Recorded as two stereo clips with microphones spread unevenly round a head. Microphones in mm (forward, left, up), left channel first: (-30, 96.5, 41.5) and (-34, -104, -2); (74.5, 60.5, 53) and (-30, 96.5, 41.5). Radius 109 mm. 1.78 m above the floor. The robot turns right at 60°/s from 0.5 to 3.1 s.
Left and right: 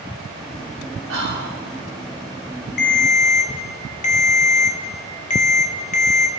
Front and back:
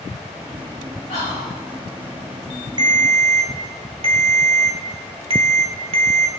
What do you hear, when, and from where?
1.1 s whispering: 60° right, 6 m; by 1.6 s 30° right, 6 m
2.8 s a ringtone: 110° left, 1.5 m; by 6.3 s 130° left, 1.5 m